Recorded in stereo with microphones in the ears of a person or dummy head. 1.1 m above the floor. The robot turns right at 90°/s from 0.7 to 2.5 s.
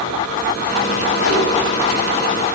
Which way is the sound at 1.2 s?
95° left.